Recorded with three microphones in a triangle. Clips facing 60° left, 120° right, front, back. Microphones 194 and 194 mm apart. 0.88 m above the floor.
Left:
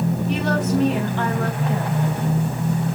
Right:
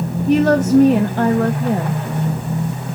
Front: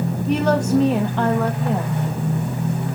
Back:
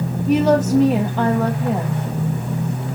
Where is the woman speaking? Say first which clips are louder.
Right 12 dB, back 4 dB; 95° right, 1.0 m.